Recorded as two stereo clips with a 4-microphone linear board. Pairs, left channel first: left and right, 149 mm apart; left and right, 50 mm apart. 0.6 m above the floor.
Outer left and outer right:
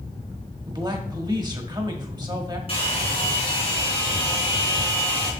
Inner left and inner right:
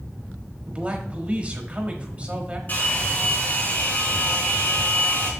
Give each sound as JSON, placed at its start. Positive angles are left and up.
{"t": 0.7, "sound": "a man speaking", "side_deg": -30, "distance_m": 1.3}
{"t": 2.7, "sound": "a hair dryer", "side_deg": 35, "distance_m": 4.0}